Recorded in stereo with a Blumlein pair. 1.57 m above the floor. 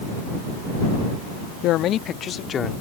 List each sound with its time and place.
1.6 s a man speaking: 35° left; by 2.7 s 20° left